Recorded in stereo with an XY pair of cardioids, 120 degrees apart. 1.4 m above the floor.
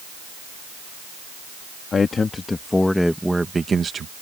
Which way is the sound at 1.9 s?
35° left.